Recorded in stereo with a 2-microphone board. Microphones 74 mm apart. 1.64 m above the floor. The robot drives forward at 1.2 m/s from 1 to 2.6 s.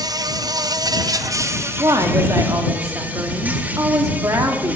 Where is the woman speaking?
55° right (ahead or behind), 3 m; by 4.8 s 45° right (ahead or behind), 3.5 m.